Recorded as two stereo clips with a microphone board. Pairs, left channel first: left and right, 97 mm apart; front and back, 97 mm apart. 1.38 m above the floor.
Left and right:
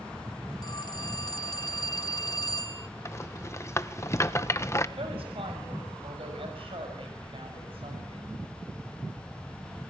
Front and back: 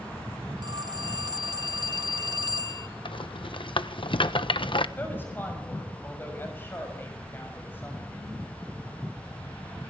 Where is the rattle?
30° left, 1.2 m.